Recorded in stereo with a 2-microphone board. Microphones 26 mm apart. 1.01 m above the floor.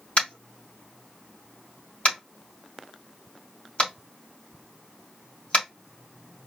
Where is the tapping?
45° left (ahead or behind), 3 m.